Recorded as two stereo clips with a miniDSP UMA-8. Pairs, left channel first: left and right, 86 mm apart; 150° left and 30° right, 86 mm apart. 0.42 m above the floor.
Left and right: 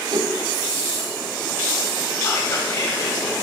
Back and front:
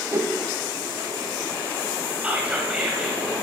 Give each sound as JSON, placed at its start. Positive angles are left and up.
{"t": 0.1, "sound": "a whoosh", "azimuth_deg": -80, "distance_m": 1.8}
{"t": 2.2, "sound": "whispering", "azimuth_deg": 45, "distance_m": 1.9}